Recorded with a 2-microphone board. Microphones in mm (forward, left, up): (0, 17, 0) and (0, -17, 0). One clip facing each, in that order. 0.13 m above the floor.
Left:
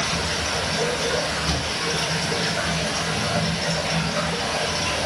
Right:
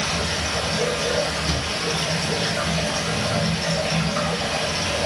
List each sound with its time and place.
0.0 s running water: 5° right (ahead or behind), 1.2 m
1.4 s a thud: 10° left (ahead or behind), 0.6 m